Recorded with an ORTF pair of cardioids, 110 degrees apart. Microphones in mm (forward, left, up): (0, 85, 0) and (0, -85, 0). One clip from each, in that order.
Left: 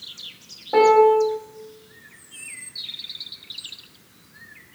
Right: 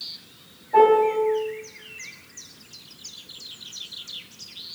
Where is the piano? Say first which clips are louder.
Left 2 dB; 65° left, 1.1 m.